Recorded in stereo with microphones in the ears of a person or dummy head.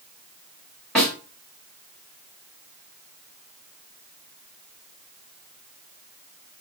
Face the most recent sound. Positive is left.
turn(degrees=5)  # may be behind; listen again after turning